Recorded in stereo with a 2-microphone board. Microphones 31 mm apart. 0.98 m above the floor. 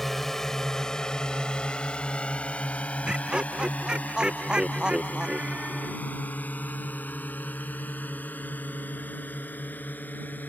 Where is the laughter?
30° right (ahead or behind).